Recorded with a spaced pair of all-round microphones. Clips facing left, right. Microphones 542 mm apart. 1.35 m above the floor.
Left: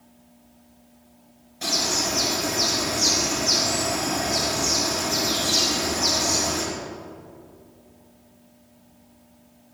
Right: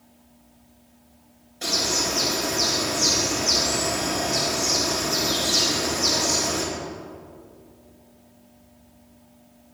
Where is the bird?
30° left (ahead or behind), 3.5 m.